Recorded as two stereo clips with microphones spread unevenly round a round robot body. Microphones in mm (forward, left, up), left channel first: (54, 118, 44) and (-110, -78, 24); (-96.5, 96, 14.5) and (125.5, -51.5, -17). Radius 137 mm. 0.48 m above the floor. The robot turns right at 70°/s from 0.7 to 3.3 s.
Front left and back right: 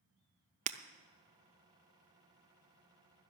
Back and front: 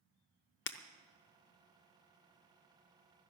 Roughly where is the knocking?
No knocking in this recording.